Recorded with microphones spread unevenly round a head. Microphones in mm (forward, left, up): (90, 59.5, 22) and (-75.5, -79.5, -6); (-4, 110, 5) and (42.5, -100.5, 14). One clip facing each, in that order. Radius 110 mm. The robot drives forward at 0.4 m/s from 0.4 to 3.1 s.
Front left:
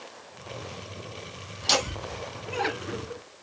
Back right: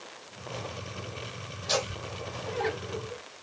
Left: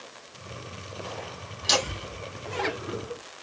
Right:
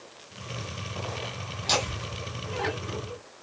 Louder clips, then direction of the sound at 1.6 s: Front left 2 dB, left 1 dB; 40° left.